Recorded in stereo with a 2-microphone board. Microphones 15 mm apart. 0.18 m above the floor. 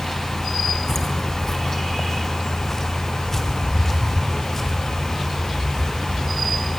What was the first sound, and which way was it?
Footsteps, 35° left (ahead or behind).